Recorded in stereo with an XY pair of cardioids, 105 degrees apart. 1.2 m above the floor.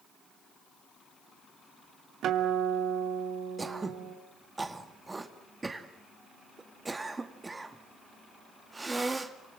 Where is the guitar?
70° right, 3 m.